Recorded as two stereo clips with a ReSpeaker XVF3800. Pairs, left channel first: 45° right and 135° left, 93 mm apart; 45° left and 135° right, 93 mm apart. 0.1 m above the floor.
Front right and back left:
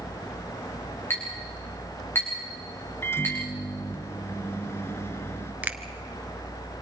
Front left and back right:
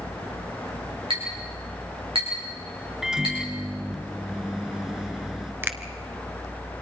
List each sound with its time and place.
1.1 s a clink: 110° right, 7 m
3.0 s a microwave: 55° right, 1.0 m
5.6 s a finger snap: 170° right, 1.2 m